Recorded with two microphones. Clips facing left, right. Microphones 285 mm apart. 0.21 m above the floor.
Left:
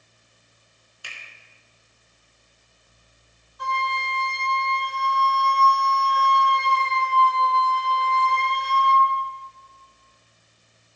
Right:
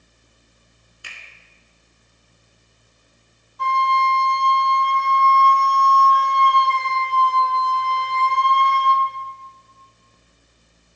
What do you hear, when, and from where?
1.0 s a finger snap: 25° right (ahead or behind), 1.8 m
3.6 s a flute: 75° right (ahead or behind), 2.5 m